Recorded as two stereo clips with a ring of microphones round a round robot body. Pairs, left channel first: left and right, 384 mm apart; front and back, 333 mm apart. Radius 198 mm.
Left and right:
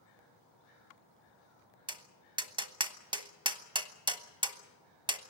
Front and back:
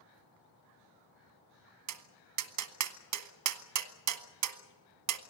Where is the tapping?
165° right, 1.2 m.